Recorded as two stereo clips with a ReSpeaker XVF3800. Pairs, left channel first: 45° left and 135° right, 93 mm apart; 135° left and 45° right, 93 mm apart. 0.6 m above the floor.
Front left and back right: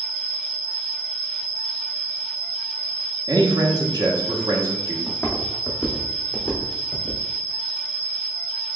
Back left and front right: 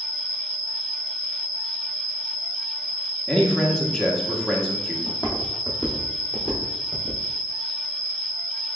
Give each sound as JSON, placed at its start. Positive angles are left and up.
{"t": 0.0, "sound": "an insect", "azimuth_deg": 105, "distance_m": 2.5}
{"t": 3.3, "sound": "a man speaking", "azimuth_deg": -140, "distance_m": 0.9}
{"t": 5.1, "sound": "footsteps", "azimuth_deg": 120, "distance_m": 1.5}